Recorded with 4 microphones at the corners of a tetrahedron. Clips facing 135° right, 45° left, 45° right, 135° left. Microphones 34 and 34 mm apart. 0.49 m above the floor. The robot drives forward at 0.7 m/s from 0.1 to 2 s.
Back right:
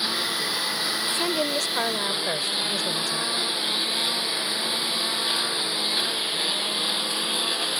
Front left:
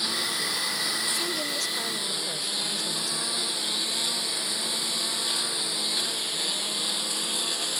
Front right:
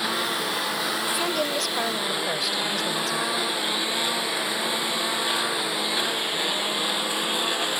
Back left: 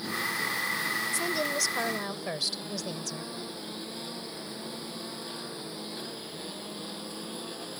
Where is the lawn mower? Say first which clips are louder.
Back right 2 dB, front right 5 dB; 60° right; by 7.8 s 65° right.